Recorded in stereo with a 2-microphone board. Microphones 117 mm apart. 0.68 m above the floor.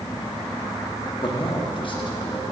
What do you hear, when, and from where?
1.2 s a man speaking: 45° left (ahead or behind), 1.0 m